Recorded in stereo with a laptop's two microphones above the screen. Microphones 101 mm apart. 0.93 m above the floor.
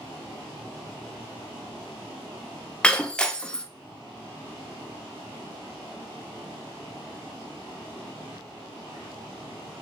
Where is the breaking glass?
10° left (ahead or behind), 0.6 m.